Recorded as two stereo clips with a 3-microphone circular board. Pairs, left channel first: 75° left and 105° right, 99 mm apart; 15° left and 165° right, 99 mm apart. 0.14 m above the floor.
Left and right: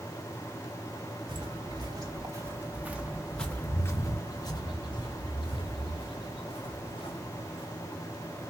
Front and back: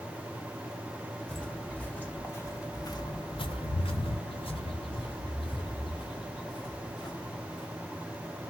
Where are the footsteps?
70° right, 1.2 m; by 7.7 s 60° left, 2.5 m.